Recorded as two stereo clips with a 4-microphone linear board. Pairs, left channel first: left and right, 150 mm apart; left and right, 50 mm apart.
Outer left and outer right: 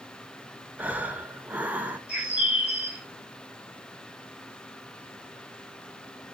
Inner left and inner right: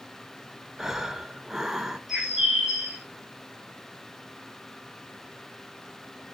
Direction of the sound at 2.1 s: 10° right (ahead or behind).